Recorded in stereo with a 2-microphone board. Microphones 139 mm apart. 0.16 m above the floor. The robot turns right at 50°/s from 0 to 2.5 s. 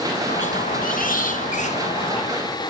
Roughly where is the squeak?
Ahead left.